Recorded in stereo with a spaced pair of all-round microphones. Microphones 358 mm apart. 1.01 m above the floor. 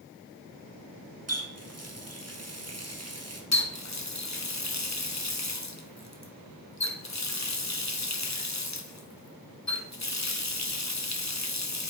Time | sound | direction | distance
1.3 | a running tap | 45° right (ahead or behind) | 1.3 m
3.5 | a running tap | 50° left (ahead or behind) | 1.0 m